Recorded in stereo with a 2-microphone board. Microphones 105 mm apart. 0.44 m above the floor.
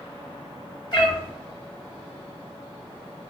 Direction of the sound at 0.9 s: 45° left (ahead or behind).